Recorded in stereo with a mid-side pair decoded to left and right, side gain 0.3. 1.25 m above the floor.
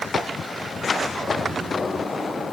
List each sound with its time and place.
Only background noise.